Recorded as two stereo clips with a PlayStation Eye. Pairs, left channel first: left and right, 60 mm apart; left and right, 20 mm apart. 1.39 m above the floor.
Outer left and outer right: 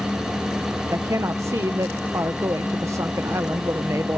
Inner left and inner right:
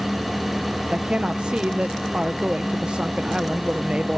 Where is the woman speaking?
55° right (ahead or behind).